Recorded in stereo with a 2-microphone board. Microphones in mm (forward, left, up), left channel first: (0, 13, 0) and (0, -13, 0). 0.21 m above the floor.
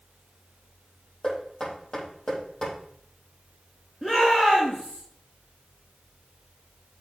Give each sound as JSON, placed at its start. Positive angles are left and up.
{"t": 1.2, "sound": "knocking", "side_deg": 30, "distance_m": 5.0}
{"t": 4.0, "sound": "a shout", "side_deg": 20, "distance_m": 3.0}